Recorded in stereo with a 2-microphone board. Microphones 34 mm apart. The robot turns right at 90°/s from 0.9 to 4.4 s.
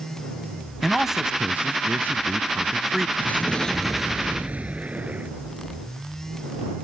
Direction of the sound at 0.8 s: 170° left.